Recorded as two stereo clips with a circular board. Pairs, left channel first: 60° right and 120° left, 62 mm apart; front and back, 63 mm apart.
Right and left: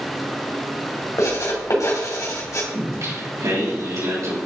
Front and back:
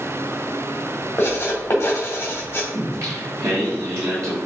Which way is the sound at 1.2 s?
45° right.